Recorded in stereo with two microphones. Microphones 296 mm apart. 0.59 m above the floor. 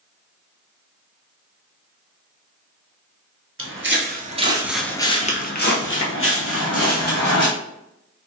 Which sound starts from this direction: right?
Footsteps, at 3.6 s.